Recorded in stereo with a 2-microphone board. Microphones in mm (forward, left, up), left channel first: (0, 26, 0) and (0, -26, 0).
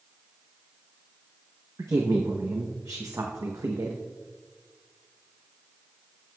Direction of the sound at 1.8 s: 80° right.